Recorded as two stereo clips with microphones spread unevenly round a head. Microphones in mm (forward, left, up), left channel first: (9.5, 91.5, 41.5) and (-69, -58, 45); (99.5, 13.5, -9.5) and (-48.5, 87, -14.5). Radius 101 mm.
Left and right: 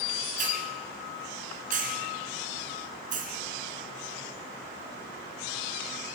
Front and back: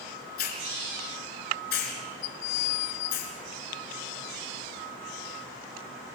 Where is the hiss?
65° right, 2.5 m.